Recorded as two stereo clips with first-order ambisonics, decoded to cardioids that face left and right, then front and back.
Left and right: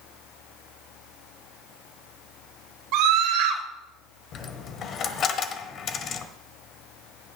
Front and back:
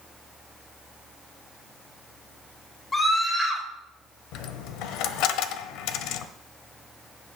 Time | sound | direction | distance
2.9 | a scream | 75° right | 3 m
4.3 | a dropped coin | 35° left | 1.0 m